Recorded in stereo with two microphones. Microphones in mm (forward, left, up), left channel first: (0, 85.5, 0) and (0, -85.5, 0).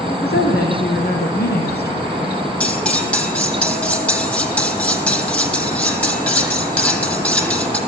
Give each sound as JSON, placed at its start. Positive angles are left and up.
{"t": 0.1, "sound": "a woman speaking", "side_deg": 75, "distance_m": 6.0}
{"t": 2.6, "sound": "cutlery clinking", "side_deg": 5, "distance_m": 3.5}